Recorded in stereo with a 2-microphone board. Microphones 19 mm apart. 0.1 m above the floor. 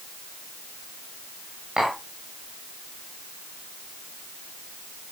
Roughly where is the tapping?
Right.